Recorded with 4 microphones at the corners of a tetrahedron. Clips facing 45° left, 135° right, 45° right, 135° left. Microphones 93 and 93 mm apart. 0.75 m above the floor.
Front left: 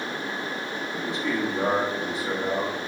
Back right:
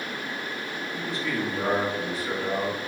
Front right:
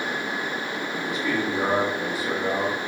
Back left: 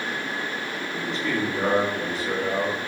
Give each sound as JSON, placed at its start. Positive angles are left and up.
{"t": 0.9, "sound": "a man speaking", "azimuth_deg": 5, "distance_m": 1.2}